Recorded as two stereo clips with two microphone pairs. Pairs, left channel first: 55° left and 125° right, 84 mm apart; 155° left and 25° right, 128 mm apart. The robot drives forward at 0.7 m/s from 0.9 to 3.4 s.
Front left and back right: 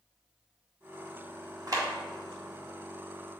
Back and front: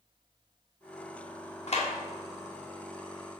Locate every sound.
1.7 s a clap: 170° right, 2.0 m